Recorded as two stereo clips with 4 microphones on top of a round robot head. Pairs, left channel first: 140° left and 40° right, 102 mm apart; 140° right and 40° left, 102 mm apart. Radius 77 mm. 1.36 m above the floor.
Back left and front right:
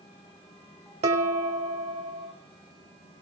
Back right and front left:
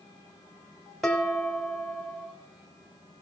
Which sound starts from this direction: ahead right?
Dishes clattering, at 1.0 s.